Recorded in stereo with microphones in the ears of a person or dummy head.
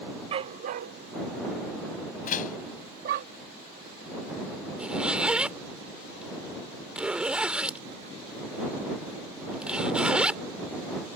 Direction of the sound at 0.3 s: 30° right (ahead or behind).